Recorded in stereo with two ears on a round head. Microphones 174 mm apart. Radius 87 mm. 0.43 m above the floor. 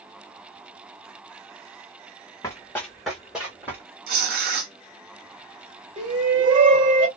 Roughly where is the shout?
Right.